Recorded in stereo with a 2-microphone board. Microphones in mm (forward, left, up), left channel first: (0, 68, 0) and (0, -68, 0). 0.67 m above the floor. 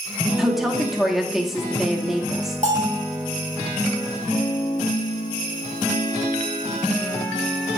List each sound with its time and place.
0.4 s a woman speaking: centre (ahead or behind), 1.1 m
2.6 s a bell: 60° right (ahead or behind), 2.5 m